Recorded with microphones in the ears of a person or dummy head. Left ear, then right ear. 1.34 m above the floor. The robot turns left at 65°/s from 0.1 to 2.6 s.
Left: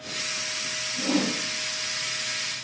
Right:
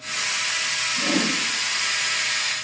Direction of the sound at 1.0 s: 15° right (ahead or behind).